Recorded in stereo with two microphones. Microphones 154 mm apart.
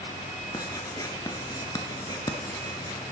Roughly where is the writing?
Left.